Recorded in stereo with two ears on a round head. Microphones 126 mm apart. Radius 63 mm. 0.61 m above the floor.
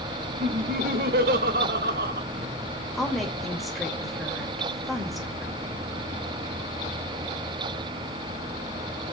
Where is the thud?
No thud in this recording.